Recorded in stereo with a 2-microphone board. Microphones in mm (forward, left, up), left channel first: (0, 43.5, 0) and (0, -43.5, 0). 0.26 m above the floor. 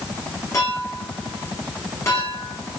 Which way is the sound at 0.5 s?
35° left (ahead or behind).